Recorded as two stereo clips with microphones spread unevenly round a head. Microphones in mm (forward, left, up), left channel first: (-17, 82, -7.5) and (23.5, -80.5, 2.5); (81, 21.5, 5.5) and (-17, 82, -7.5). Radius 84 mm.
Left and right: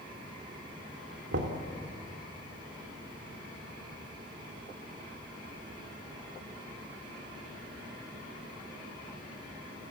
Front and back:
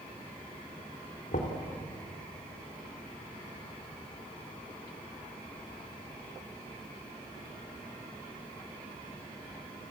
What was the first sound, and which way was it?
Knocking, 60° right.